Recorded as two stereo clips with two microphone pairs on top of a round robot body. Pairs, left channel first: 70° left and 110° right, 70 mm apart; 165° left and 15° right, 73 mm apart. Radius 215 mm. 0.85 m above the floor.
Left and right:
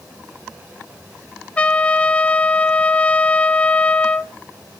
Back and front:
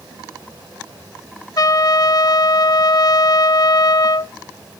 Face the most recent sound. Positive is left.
turn(degrees=145)